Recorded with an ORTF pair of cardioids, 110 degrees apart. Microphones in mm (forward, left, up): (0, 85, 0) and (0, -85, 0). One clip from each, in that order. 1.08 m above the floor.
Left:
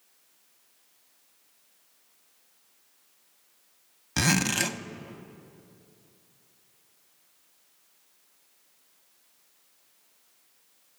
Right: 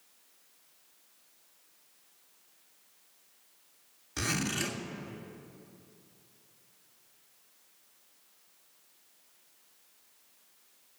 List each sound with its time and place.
4.2 s a zipper: 70° left, 0.8 m